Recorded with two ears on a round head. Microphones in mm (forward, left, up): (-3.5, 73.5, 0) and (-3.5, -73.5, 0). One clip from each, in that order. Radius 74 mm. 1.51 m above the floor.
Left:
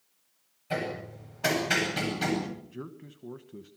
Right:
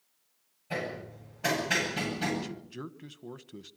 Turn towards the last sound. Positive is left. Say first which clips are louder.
# left 1 dB
turn(degrees=-80)